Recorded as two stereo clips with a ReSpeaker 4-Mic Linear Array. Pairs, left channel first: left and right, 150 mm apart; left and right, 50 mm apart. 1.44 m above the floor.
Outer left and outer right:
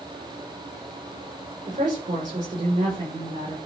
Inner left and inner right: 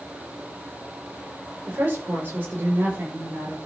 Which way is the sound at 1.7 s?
50° right (ahead or behind).